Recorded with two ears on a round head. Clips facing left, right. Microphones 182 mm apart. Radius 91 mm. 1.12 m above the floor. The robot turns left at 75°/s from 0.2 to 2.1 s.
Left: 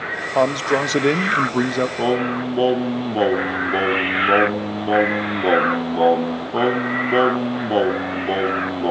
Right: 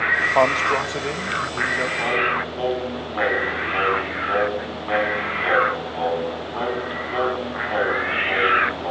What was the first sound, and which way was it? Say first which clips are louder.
A man speaking: left 2 dB; 165° left.